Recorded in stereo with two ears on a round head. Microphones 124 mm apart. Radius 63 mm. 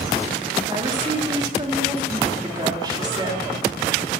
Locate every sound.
0.7 s a woman speaking: 35° right (ahead or behind), 2.5 m